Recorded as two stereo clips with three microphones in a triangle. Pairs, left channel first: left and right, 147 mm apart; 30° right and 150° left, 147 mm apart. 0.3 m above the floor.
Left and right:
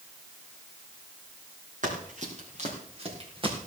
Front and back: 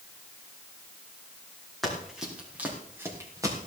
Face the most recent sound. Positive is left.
turn(degrees=-145)